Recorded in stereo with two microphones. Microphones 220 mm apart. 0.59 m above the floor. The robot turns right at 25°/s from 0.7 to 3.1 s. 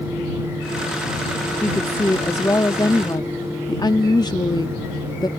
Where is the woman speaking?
10° left (ahead or behind); by 5.3 s 20° left (ahead or behind).